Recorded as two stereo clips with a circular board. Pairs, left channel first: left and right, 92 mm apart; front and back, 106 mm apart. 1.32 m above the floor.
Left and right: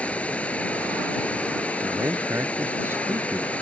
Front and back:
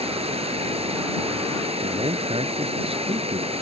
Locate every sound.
0.0 s running water: 165° left
1.8 s a man speaking: 155° right